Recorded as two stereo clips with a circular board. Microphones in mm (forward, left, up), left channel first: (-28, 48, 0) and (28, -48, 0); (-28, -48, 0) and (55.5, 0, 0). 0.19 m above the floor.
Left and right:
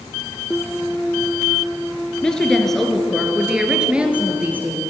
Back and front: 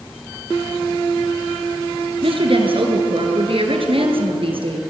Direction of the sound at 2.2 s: 40° left.